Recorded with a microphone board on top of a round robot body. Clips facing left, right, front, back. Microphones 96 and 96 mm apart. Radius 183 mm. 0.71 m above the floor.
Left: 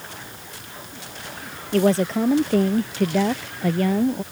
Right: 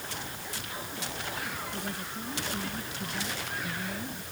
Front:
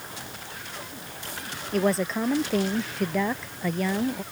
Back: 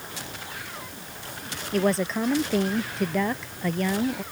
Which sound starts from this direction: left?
A woman speaking, at 1.7 s.